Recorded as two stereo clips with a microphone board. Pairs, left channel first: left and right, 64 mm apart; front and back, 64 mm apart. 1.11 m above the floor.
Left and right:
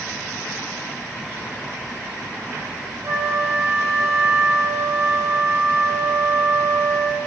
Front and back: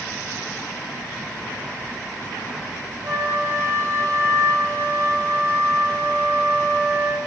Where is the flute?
135° right, 1.7 m.